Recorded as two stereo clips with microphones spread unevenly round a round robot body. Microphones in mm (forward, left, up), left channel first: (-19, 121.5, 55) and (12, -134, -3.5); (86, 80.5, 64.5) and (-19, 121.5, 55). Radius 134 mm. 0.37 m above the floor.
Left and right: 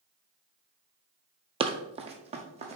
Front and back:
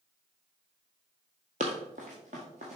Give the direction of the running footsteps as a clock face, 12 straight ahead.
5 o'clock.